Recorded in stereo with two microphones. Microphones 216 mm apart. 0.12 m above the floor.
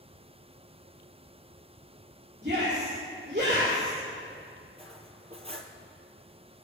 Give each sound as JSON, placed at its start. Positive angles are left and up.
{"t": 2.4, "sound": "a shout", "side_deg": -35, "distance_m": 5.5}
{"t": 4.8, "sound": "cutlery clinking", "side_deg": -25, "distance_m": 1.7}